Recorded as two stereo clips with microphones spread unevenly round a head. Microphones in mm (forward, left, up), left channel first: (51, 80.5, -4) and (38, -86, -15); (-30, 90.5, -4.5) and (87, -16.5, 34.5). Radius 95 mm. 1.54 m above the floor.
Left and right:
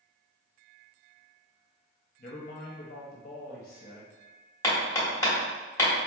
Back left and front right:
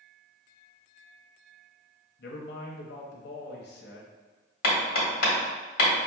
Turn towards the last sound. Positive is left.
turn(degrees=145)